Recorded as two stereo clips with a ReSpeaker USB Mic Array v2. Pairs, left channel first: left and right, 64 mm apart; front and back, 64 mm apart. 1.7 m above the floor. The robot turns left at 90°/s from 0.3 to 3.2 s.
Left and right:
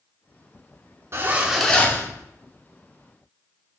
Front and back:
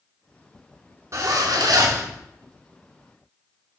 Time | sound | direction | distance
1.1 | a zipper | 140° right | 0.6 m